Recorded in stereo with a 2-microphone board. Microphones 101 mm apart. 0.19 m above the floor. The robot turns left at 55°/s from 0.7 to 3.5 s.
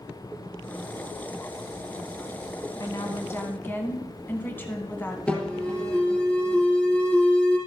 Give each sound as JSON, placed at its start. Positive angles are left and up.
{"t": 2.8, "sound": "a woman speaking", "azimuth_deg": 70, "distance_m": 1.6}
{"t": 5.3, "sound": "an alarm", "side_deg": 15, "distance_m": 4.5}